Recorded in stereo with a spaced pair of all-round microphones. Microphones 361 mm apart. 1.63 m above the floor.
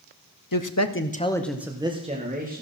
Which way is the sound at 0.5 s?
70° left (ahead or behind).